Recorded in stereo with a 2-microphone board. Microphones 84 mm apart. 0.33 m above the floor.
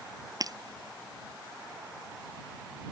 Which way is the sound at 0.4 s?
50° right (ahead or behind).